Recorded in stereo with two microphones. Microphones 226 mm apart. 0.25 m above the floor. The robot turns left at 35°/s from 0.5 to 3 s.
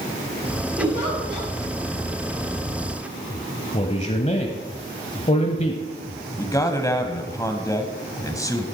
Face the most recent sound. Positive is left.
turn(degrees=15)  # may be behind; listen again after turning